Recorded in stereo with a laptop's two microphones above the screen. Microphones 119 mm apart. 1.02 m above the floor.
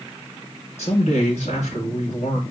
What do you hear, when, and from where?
0.8 s a man speaking: 80° left, 2 m